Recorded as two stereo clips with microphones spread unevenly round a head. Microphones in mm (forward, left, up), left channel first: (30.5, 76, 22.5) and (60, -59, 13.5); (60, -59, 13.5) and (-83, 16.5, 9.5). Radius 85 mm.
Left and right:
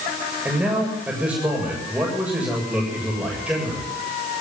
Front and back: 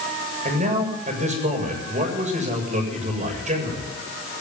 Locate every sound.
0.5 s a man speaking: 160° right, 7.5 m